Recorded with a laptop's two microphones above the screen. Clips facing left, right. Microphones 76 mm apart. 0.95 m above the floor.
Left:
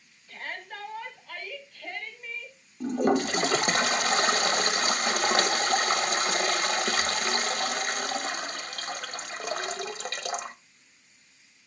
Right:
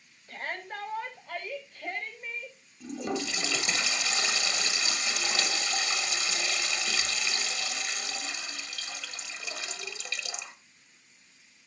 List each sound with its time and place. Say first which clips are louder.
0.3 s a shout: right 2 dB; 35° right (ahead or behind), 6.5 m; by 2.6 s 20° right (ahead or behind), 5.5 m
2.8 s a toilet flushing: left 9 dB; 45° left (ahead or behind), 0.9 m